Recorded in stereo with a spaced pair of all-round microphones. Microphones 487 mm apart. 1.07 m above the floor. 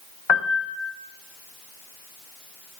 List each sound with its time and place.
0.3 s a piano: 70° left (ahead or behind), 0.6 m